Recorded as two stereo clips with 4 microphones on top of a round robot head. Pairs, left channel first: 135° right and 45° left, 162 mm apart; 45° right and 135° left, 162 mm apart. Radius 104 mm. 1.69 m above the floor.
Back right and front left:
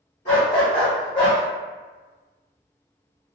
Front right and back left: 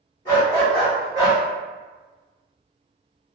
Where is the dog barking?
100° right, 1.6 m; by 1.4 s 170° left, 1.5 m.